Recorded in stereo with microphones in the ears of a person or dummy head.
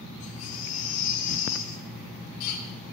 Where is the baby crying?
45° left (ahead or behind), 5.5 m.